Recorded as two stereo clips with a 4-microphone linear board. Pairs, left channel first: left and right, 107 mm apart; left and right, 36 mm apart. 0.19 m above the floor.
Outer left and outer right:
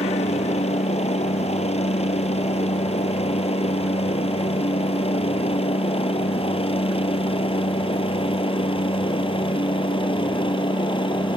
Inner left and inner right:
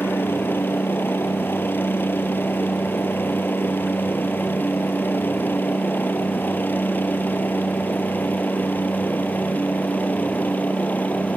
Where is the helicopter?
70° left (ahead or behind); by 11.4 s 50° left (ahead or behind).